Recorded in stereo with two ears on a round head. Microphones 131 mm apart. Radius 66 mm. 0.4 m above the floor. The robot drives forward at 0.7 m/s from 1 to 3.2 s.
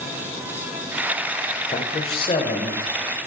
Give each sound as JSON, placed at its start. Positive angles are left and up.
{"t": 1.7, "sound": "a man speaking", "side_deg": 45, "distance_m": 1.0}